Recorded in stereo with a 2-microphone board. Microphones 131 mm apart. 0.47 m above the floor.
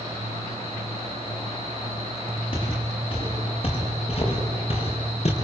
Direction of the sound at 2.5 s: 40° left (ahead or behind).